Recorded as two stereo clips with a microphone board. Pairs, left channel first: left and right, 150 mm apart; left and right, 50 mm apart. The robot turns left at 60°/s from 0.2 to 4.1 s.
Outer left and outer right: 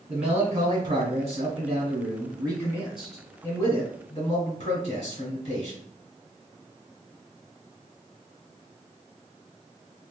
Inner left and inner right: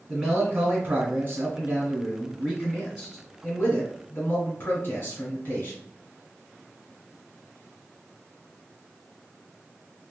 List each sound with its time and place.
0.1 s a man speaking: 5° right, 1.7 m; by 5.8 s 120° left, 1.7 m